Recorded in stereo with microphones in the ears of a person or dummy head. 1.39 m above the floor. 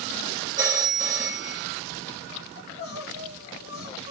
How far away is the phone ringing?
About 1.7 m.